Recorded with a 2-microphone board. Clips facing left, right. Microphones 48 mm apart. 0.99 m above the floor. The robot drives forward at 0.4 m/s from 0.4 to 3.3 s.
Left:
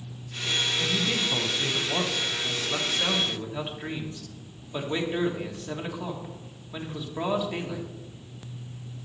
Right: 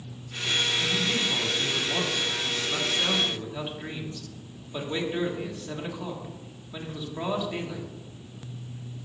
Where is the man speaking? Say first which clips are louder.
Even; 20° left (ahead or behind), 0.8 m; by 7.9 s 10° left (ahead or behind), 1.4 m.